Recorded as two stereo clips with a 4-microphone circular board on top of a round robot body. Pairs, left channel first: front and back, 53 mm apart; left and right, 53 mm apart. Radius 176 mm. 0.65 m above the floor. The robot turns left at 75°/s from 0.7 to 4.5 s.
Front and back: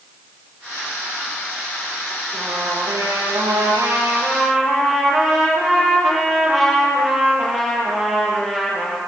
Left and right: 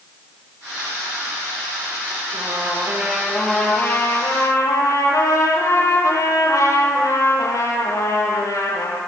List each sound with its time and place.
2.3 s a trumpet: 100° right, 10 m; by 9.0 s 95° left, 10 m